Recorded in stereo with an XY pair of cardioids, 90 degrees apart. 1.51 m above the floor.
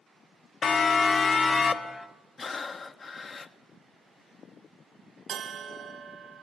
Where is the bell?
65° right, 1.4 m.